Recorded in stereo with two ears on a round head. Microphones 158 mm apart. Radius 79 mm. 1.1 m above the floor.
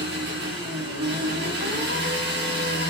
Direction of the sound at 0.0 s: 65° right (ahead or behind).